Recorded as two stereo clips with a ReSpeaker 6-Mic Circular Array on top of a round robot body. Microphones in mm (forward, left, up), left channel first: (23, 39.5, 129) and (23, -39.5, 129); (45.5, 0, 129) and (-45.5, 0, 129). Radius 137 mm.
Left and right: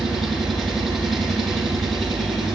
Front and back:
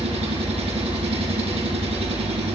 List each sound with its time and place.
0.0 s an engine running: straight behind, 4 m